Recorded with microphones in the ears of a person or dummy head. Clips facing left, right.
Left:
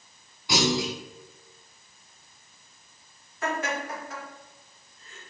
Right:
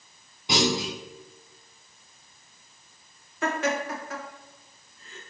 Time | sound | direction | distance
0.5 | a clunk | 20° right (ahead or behind) | 1.7 m
3.4 | laughter | 50° right (ahead or behind) | 1.7 m